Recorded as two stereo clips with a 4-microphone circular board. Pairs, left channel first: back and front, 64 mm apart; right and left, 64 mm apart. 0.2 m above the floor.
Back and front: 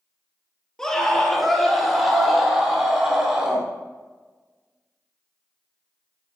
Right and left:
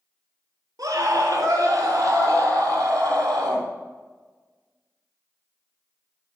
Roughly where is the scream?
Left.